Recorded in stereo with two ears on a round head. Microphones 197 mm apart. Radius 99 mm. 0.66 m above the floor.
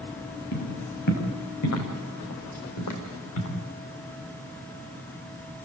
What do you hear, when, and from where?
0.5 s footsteps: 80° left, 6.5 m; by 3.6 s 75° left (ahead or behind), 7.5 m